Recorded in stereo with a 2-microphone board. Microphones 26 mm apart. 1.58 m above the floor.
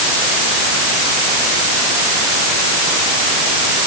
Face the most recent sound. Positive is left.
No sound to turn to.